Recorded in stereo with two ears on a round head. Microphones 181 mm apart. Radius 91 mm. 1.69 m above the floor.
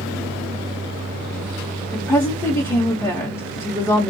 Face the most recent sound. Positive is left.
turn(degrees=10)  # may be behind; listen again after turning